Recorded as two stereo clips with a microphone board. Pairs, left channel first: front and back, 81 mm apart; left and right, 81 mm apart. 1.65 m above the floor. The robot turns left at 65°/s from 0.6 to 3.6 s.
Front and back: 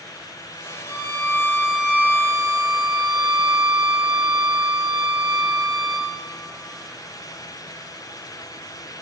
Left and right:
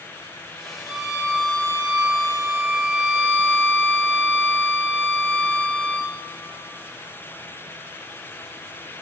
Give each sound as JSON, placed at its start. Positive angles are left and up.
{"t": 0.9, "sound": "a violin", "azimuth_deg": -35, "distance_m": 5.5}